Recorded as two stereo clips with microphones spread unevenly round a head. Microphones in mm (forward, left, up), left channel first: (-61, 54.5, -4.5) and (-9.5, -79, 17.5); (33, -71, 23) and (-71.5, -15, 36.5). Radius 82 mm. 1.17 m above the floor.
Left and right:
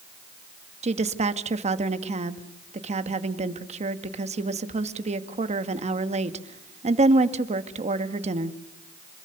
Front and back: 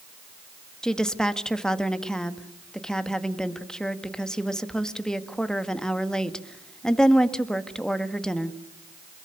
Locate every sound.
0.8 s a woman speaking: 110° right, 1.8 m